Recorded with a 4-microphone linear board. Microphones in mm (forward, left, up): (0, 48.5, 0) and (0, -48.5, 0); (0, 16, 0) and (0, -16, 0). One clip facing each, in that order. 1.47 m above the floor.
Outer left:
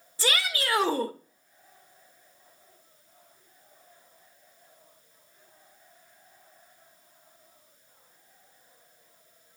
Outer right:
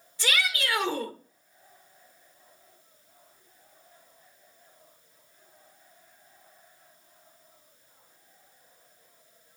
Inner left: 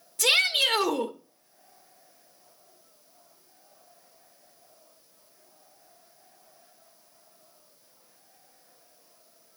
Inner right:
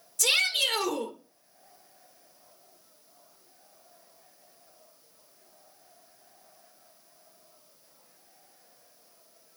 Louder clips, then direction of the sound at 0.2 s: Even, inner left 3 dB; 30° left (ahead or behind).